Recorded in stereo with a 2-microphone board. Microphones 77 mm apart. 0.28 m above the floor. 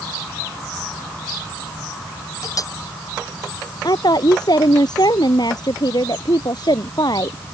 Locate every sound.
2.4 s a clink: 45° left (ahead or behind)
3.8 s a woman speaking: 60° left (ahead or behind)